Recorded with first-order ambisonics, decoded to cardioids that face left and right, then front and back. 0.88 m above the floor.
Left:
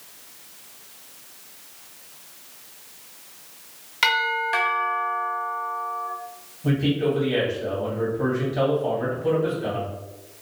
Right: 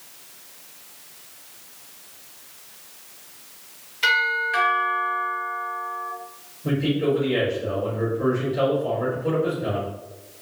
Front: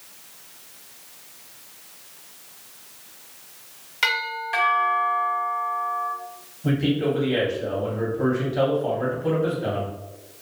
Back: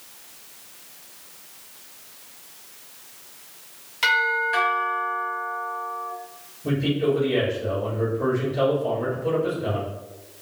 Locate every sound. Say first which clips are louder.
4.0 s a doorbell: right 1 dB, back 4 dB; 75° left, 1.2 m
6.6 s a man speaking: even, even; 45° left, 1.7 m